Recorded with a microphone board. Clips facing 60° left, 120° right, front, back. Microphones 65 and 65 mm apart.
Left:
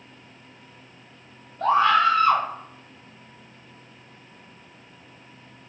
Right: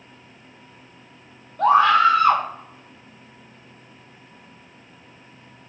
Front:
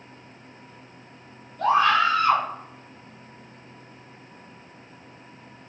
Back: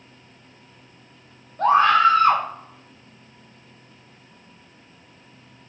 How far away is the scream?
About 0.9 m.